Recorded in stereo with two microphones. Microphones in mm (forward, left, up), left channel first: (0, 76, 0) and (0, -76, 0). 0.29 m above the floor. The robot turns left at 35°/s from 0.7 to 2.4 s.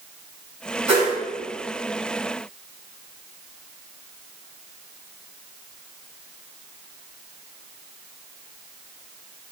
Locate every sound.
0.9 s a whoosh: 30° right (ahead or behind), 3 m; by 1.2 s 45° right (ahead or behind), 3 m